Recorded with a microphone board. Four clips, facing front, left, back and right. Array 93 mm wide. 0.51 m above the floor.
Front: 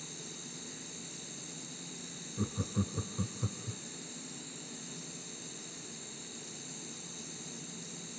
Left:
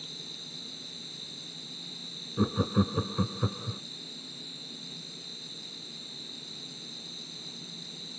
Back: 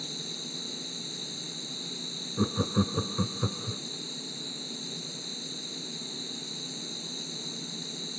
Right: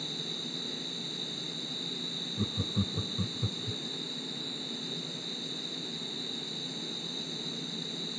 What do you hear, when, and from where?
0.0 s an insect: 60° right
2.4 s laughter: 130° left